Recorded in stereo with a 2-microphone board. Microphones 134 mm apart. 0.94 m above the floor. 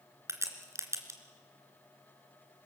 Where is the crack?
20° right (ahead or behind), 2.5 m.